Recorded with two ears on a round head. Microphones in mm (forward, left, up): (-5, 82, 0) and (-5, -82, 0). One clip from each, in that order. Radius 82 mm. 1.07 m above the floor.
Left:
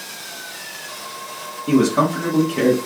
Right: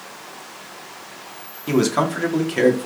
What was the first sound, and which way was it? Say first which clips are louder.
A man speaking: left 2 dB; 50° right (ahead or behind).